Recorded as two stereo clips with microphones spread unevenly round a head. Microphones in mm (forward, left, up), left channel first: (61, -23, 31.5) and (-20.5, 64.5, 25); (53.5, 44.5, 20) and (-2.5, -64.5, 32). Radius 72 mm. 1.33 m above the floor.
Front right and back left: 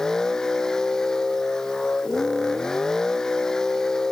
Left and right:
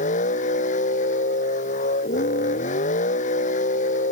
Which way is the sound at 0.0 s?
40° left.